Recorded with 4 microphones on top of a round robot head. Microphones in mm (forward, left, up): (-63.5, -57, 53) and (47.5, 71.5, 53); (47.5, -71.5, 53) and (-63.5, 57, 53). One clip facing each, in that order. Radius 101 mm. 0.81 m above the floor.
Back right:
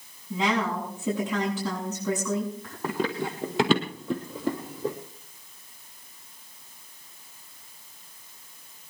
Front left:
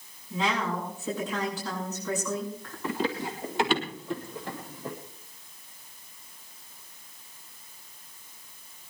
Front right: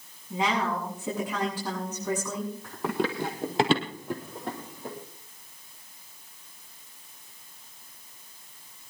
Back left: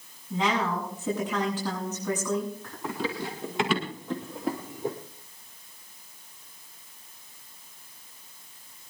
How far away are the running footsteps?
About 2.5 m.